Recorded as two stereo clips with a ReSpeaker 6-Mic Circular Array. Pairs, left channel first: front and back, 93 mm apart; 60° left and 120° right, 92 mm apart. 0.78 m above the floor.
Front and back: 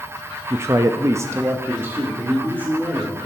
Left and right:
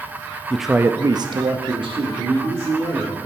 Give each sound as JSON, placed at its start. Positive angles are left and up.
{"t": 0.5, "sound": "a man speaking", "azimuth_deg": 135, "distance_m": 0.5}